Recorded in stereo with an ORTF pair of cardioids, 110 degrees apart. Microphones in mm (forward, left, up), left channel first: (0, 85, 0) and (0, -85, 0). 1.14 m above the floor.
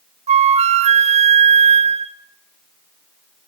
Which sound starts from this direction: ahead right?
A flute, at 0.3 s.